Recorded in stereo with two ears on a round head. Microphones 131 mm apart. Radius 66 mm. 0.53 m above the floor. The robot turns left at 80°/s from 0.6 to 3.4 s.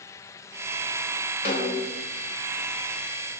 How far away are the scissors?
I don't hear scissors.